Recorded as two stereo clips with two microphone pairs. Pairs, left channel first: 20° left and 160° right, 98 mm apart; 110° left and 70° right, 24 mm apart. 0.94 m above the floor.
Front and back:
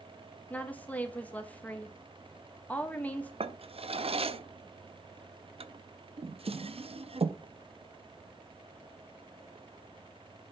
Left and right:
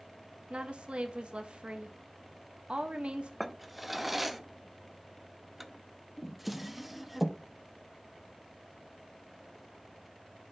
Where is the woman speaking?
50° right, 1.3 m.